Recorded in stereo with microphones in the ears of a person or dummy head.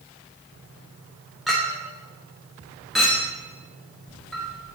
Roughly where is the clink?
Centre.